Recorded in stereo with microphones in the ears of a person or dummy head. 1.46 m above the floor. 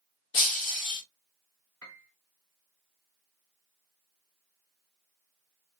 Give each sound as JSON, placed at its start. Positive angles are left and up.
{"t": 0.3, "sound": "breaking glass", "side_deg": 40, "distance_m": 1.4}
{"t": 1.8, "sound": "a piano", "side_deg": 10, "distance_m": 0.5}